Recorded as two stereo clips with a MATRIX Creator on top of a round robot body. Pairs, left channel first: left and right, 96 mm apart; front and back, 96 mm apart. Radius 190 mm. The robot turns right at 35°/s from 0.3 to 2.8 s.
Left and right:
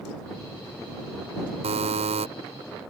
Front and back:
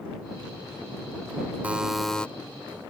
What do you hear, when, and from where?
1.6 s a buzzer: 105° right; by 2.3 s 80° right